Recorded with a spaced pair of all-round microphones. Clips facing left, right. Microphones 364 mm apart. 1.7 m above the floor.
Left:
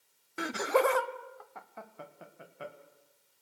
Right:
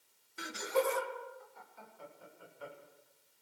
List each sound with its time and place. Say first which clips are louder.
0.4 s laughter: left 5 dB; 75° left (ahead or behind), 0.6 m; by 2.7 s 80° left, 2.5 m